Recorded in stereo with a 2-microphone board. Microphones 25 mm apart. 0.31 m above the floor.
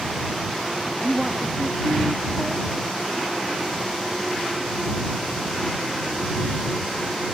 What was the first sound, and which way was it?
A woman speaking, 5° right (ahead or behind).